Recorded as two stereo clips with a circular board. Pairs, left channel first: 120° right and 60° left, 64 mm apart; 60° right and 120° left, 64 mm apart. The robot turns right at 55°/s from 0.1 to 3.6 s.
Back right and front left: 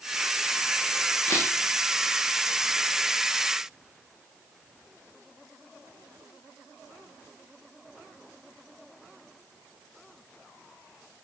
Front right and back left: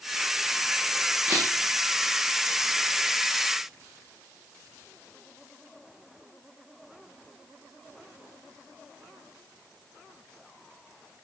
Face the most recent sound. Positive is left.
turn(degrees=-55)